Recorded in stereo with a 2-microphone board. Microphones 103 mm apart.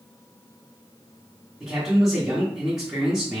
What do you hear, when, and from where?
1.6 s a man speaking: 5° right (ahead or behind), 1.1 m